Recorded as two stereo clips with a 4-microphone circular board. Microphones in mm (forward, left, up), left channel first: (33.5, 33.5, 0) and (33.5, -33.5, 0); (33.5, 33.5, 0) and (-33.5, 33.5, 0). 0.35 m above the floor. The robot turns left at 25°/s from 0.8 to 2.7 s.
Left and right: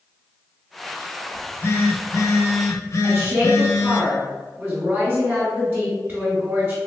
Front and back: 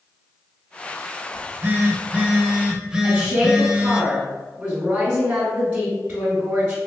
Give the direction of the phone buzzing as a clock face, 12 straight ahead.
7 o'clock.